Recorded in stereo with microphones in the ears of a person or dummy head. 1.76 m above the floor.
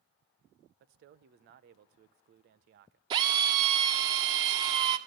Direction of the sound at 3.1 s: 30° right (ahead or behind).